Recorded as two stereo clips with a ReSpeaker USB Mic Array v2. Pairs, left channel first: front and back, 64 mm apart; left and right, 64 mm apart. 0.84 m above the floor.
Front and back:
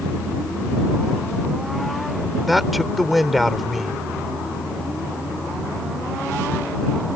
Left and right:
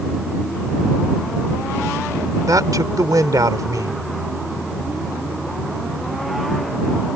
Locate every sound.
2.5 s a man speaking: 90° right